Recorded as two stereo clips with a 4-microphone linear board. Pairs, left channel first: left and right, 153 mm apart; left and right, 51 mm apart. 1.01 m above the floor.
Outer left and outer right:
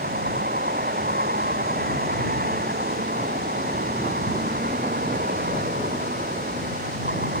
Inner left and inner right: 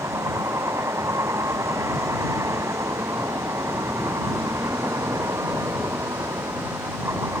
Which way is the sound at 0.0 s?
85° right.